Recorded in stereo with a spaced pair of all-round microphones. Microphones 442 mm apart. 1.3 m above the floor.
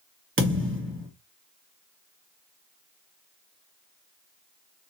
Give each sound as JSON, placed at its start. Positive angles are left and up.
{"t": 0.4, "sound": "a thud", "side_deg": -25, "distance_m": 1.5}